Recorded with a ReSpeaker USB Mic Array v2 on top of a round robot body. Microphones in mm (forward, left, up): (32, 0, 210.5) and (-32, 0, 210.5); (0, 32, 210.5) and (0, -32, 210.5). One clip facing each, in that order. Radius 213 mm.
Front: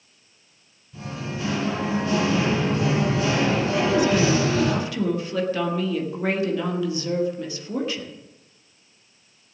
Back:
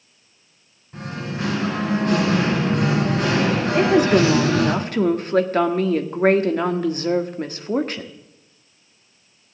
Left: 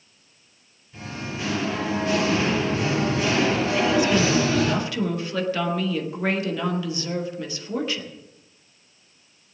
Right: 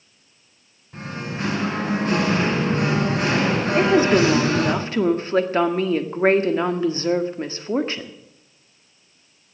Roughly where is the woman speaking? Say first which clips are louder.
Back 6 dB, right 6 dB; behind right.